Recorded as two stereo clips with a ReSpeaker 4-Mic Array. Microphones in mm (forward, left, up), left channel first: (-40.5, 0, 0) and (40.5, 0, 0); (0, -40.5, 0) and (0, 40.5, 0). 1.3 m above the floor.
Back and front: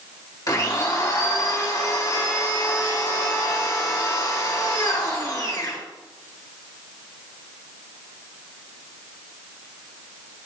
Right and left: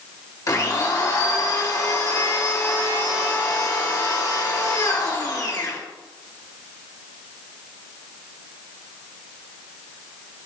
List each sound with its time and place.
0.5 s a blender: 135° right, 1.8 m